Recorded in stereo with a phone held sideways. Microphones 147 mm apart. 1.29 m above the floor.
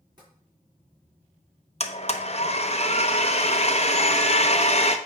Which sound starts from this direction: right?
Tapping, at 0.2 s.